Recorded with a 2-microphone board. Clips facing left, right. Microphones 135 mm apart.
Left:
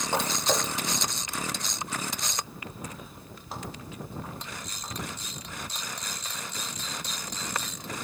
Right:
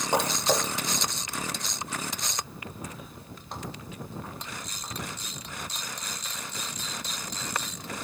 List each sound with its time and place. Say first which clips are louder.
0.1 s footsteps: right 2 dB; 20° right (ahead or behind), 0.5 m; by 5.1 s 5° left (ahead or behind), 6.5 m